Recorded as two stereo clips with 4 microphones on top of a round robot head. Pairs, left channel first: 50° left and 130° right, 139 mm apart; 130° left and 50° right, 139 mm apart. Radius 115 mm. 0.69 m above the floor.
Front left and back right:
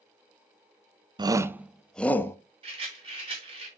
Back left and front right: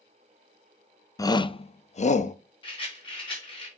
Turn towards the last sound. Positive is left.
turn(degrees=180)